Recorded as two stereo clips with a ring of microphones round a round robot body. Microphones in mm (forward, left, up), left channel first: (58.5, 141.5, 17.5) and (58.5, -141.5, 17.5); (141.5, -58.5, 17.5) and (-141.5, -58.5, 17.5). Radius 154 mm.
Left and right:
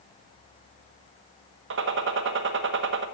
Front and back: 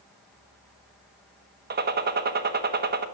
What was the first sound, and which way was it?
A gunshot, 130° right.